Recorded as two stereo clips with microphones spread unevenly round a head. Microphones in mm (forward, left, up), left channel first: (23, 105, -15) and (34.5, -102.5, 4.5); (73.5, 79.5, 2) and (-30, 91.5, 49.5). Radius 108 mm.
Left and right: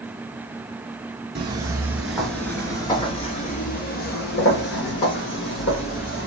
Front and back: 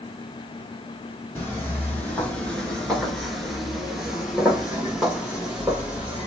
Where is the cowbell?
I don't hear a cowbell.